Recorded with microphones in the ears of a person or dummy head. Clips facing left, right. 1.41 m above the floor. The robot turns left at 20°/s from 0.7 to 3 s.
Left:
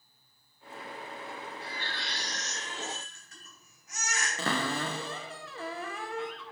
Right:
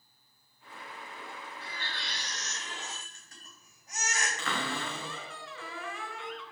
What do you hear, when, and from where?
1.6 s a baby crying: 55° right (ahead or behind), 3.5 m; by 4.3 s 25° right (ahead or behind), 3.5 m
4.4 s a cupboard door: 35° left (ahead or behind), 0.9 m